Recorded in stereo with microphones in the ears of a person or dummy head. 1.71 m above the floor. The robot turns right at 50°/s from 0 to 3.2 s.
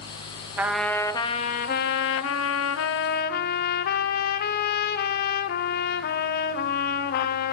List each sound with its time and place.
0.6 s a trumpet: 10° right, 0.8 m; by 7.5 s 125° left, 0.8 m